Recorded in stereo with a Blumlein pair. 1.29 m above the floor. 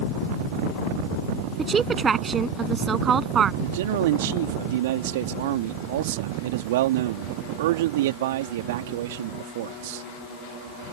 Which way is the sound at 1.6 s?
15° right.